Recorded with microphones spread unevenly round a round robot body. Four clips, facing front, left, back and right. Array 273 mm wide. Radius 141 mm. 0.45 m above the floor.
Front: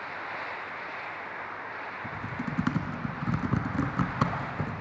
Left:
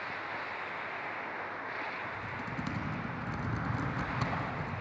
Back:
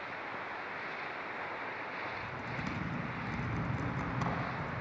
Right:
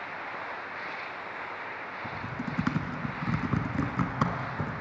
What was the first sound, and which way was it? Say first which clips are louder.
Typing on a keyboard: right 4 dB, front 5 dB; 40° right.